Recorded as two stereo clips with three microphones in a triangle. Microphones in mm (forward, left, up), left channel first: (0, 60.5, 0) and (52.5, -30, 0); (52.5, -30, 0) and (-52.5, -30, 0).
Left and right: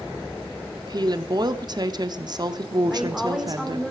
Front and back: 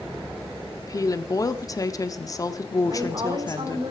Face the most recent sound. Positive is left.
turn(degrees=-150)